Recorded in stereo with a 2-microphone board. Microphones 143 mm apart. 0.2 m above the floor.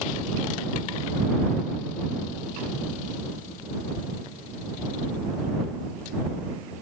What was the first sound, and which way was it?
Only background noise.